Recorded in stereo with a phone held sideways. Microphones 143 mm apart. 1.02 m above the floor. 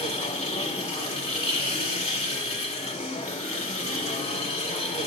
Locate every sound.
0.0 s a machine running: 45° left (ahead or behind), 1.8 m